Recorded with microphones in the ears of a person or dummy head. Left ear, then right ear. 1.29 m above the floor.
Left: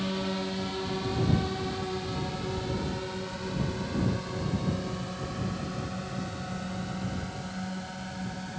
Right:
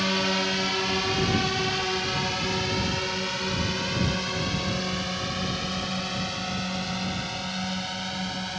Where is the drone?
55° right (ahead or behind); by 8.6 s 70° right (ahead or behind).